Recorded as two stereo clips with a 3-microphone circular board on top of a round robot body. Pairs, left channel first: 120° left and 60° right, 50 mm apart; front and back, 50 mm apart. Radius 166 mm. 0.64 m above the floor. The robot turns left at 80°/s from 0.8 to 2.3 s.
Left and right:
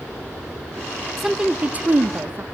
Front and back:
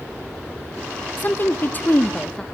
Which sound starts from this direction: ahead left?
A woman speaking, at 1.2 s.